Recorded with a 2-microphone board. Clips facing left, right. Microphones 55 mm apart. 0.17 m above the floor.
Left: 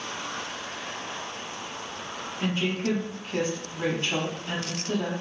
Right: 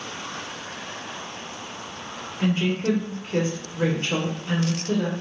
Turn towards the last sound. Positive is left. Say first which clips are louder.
# right 4 dB
turn(degrees=-35)  # may be behind; listen again after turning